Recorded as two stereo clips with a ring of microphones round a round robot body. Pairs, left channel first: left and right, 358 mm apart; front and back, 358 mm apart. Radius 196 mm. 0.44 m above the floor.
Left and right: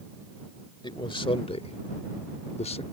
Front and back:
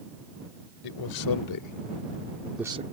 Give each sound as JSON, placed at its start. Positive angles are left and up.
{"t": 0.8, "sound": "a man speaking", "azimuth_deg": 15}